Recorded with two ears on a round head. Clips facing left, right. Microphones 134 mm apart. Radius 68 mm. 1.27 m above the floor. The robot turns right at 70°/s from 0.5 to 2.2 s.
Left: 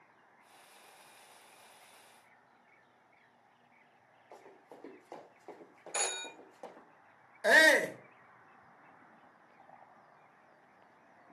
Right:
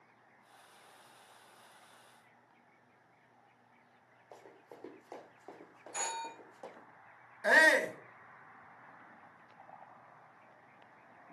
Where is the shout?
35° left (ahead or behind), 1.1 m.